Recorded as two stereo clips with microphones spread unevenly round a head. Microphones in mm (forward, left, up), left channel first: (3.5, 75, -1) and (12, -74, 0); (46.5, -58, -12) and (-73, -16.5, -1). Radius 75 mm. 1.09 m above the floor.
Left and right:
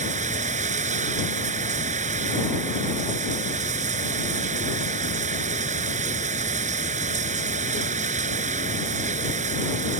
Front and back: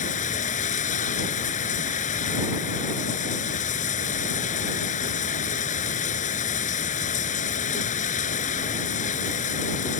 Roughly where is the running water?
Ahead right.